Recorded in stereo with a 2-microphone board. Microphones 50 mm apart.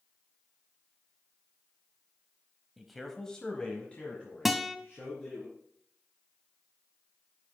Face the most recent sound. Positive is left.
turn(degrees=-5)  # may be behind; listen again after turning